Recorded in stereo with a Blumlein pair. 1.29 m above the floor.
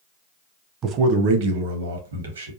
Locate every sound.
0.8 s a man speaking: 25° right, 0.6 m; by 2.5 s 70° right, 1.3 m